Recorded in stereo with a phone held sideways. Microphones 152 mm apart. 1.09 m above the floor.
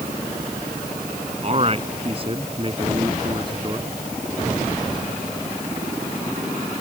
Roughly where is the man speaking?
Right.